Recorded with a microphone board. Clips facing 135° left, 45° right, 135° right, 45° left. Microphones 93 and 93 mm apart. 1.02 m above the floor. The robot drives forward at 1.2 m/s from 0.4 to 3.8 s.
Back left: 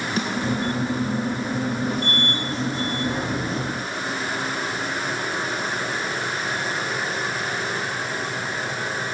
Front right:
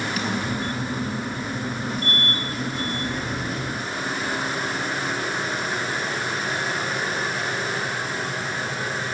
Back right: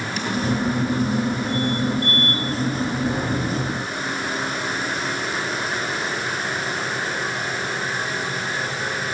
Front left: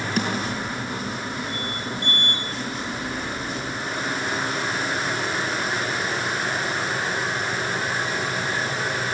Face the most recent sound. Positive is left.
turn(degrees=135)